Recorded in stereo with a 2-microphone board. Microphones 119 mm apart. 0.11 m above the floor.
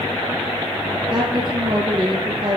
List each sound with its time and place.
1.1 s a woman speaking: 40° right (ahead or behind), 3 m